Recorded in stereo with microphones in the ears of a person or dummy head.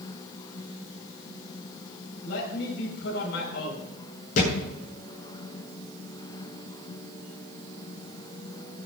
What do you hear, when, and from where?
2.2 s a man speaking: 70° left (ahead or behind), 5 m
4.4 s a thud: 50° left (ahead or behind), 8 m